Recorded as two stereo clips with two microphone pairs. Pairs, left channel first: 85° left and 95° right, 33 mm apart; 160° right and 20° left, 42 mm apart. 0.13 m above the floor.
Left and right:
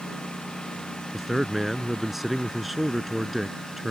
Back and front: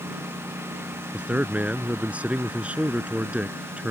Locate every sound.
0.0 s a lawn mower: 15° left; by 3.9 s 10° left
1.1 s a man speaking: 10° right